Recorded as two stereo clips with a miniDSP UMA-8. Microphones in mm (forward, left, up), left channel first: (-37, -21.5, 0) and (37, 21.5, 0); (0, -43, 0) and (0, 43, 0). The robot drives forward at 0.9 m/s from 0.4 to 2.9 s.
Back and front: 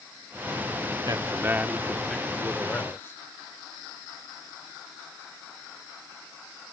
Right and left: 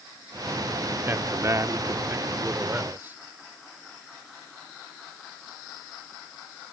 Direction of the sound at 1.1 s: 45° left.